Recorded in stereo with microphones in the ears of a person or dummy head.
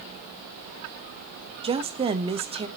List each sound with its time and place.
1.6 s a woman speaking: 25° right (ahead or behind), 1.2 m